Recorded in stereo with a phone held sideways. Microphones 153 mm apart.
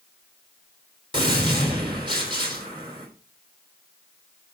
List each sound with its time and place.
1.1 s a gunshot: 30° right (ahead or behind), 4 m